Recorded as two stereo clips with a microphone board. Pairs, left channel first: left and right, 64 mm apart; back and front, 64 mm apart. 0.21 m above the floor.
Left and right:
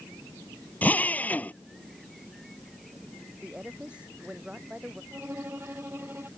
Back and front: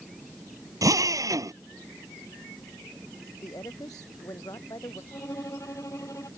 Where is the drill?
25° left.